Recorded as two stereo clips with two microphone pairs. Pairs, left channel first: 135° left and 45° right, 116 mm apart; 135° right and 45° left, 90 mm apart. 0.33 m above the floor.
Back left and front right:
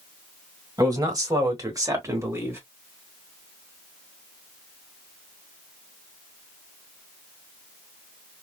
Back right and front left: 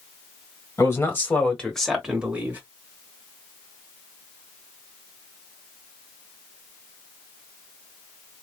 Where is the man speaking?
90° right, 1.7 m; by 2.6 s straight ahead, 1.3 m.